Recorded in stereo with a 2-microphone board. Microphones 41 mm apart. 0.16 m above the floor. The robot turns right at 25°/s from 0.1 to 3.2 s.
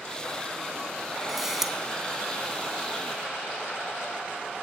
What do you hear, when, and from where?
1.3 s a camera shutter: 5° right (ahead or behind), 0.5 m; by 1.7 s 10° right (ahead or behind), 0.5 m